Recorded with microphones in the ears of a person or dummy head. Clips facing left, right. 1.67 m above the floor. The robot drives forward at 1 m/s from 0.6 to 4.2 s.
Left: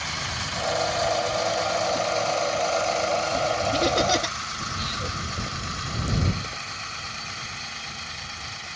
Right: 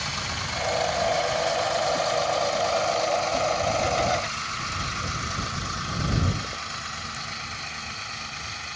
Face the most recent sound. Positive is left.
turn(degrees=60)  # may be behind; listen again after turning